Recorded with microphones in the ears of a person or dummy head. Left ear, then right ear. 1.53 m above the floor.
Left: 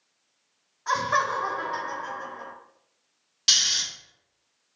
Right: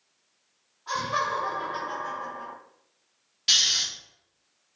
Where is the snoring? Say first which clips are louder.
Even; 30° left (ahead or behind), 1.2 m.